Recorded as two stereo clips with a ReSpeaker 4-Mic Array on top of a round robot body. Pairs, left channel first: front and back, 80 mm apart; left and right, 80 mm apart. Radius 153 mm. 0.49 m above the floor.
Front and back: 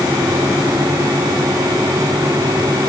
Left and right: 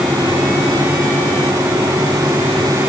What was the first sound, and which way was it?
Only background noise.